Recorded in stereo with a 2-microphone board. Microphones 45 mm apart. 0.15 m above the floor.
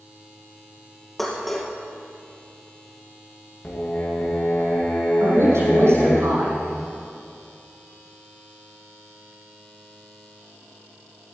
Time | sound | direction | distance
1.2 | dishes clattering | 5° left (ahead or behind) | 2.5 m
3.6 | singing | 35° left (ahead or behind) | 4 m
5.2 | a woman speaking | 80° right | 6.5 m